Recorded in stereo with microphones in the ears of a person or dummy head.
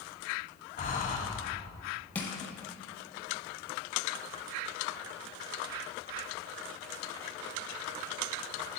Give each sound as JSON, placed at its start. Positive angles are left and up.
{"t": 0.8, "sound": "breathing", "side_deg": 35, "distance_m": 1.1}
{"t": 2.1, "sound": "crushing", "side_deg": 10, "distance_m": 1.0}